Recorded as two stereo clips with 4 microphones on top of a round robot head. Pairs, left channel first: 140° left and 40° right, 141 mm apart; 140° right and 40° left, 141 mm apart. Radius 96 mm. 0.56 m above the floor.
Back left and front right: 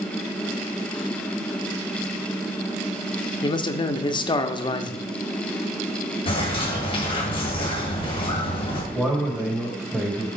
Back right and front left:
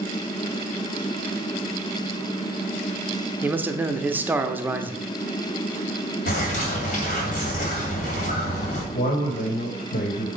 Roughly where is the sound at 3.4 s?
Left.